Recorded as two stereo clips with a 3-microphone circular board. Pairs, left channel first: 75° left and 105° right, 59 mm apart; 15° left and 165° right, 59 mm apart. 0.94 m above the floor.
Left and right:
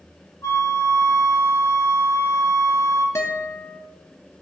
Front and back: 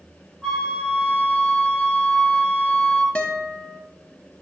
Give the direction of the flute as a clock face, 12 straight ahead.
9 o'clock.